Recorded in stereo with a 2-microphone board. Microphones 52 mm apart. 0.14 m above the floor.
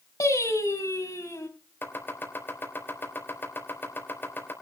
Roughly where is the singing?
Left.